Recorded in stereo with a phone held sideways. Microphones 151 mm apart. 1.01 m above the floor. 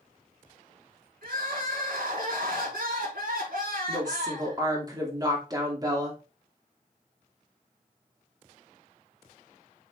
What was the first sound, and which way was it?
Crying, 80° right.